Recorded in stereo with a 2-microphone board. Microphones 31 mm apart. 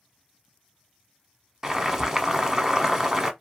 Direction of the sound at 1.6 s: 20° right (ahead or behind).